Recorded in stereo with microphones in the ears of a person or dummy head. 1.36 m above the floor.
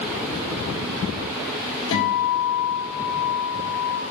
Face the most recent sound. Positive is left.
turn(degrees=75)  # may be behind; listen again after turning